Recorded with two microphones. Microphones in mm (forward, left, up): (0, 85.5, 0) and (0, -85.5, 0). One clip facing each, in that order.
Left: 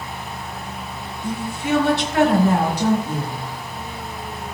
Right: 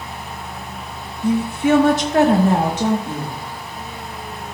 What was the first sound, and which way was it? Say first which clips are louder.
A woman speaking: right 8 dB; 65° right (ahead or behind).